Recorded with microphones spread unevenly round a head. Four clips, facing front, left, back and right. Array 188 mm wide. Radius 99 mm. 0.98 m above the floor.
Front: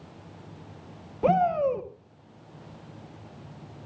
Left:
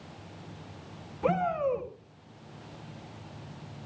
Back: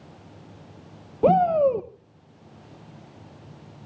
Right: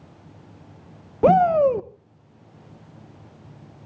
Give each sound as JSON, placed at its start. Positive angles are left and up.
{"t": 1.2, "sound": "a shout", "azimuth_deg": -120, "distance_m": 0.7}